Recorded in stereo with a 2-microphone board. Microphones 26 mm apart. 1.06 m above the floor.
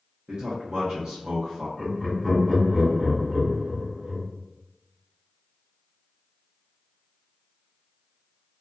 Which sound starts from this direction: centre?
Laughter, at 1.8 s.